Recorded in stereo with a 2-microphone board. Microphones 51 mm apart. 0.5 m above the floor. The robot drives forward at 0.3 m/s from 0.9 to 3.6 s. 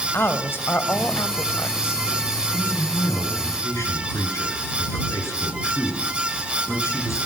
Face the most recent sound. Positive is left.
turn(degrees=70)  # may be behind; listen again after turning